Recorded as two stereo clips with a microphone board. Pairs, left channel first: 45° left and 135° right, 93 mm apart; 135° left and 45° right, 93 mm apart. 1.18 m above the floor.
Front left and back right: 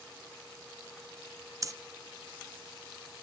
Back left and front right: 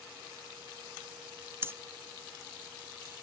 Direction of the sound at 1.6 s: 100° right.